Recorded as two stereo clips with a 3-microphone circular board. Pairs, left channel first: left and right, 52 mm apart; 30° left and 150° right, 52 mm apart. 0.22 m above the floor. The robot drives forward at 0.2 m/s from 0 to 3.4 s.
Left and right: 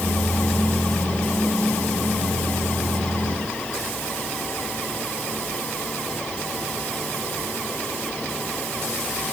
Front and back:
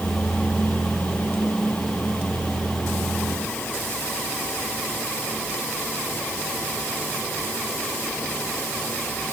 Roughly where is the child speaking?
No child speaking in this recording.